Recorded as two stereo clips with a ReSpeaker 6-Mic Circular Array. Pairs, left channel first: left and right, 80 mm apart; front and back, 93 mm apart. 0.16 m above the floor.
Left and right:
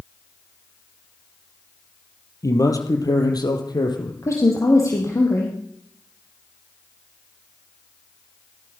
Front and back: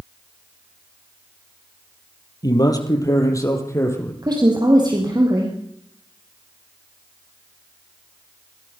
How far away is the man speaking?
About 4 m.